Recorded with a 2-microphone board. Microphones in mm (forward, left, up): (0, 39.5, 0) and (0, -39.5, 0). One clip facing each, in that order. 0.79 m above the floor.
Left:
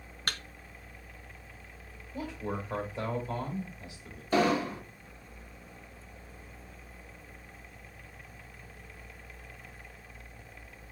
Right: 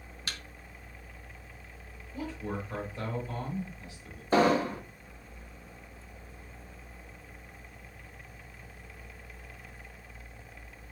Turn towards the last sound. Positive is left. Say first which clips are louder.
# right 2 dB
turn(degrees=-35)  # may be behind; listen again after turning